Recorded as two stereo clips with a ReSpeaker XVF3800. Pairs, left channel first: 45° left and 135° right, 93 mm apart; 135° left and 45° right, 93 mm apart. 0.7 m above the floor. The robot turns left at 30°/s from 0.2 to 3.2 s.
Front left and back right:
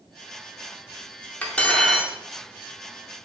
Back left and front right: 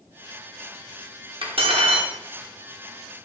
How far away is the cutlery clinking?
About 0.6 m.